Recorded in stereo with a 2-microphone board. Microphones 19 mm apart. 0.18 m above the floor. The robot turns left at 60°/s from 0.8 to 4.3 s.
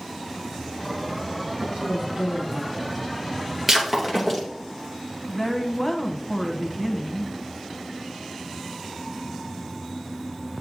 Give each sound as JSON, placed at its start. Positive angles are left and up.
{"t": 1.6, "sound": "a woman speaking", "azimuth_deg": -90, "distance_m": 4.0}
{"t": 3.7, "sound": "breaking glass", "side_deg": -20, "distance_m": 2.5}
{"t": 5.3, "sound": "a woman speaking", "side_deg": 15, "distance_m": 1.0}